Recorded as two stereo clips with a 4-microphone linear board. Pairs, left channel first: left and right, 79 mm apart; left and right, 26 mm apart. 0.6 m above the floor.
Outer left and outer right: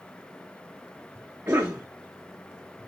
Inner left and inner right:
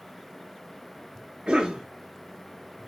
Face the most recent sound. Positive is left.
turn(degrees=-30)  # may be behind; listen again after turning